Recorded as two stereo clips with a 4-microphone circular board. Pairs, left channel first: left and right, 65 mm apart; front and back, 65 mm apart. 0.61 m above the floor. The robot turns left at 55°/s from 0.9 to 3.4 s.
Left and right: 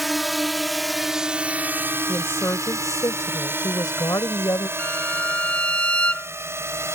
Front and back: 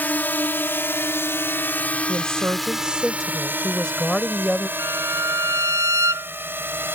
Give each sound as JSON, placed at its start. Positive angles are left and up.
{"t": 0.0, "sound": "a drone", "azimuth_deg": 0}
{"t": 2.1, "sound": "a woman speaking", "azimuth_deg": 150}
{"t": 4.8, "sound": "a violin", "azimuth_deg": 160}